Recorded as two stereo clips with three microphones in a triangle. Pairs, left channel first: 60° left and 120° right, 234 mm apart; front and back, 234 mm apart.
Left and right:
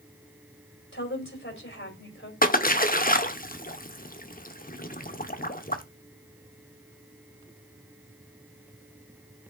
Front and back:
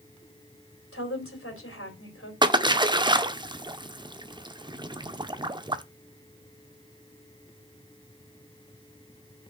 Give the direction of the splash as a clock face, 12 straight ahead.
8 o'clock.